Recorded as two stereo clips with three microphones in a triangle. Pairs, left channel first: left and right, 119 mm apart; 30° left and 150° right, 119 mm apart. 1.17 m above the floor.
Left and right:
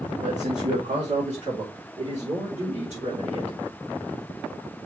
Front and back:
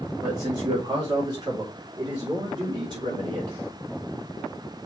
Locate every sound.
0.2 s a man speaking: 95° right, 1.9 m; by 3.6 s 100° right, 4.5 m